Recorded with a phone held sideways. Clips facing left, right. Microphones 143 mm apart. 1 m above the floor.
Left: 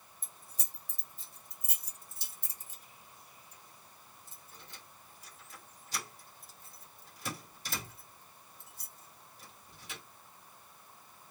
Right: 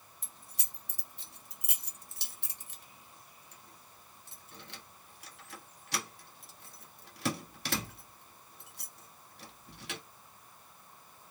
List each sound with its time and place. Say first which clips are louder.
0.2 s keys jangling: right 1 dB; 70° right (ahead or behind), 1.0 m